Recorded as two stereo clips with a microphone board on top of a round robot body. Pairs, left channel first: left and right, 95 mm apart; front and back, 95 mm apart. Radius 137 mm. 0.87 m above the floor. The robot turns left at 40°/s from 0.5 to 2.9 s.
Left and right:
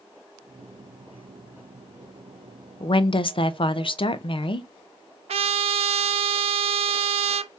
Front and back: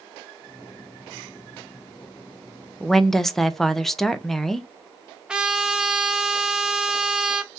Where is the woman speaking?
90° left, 0.6 m; by 4.7 s 85° left, 0.6 m.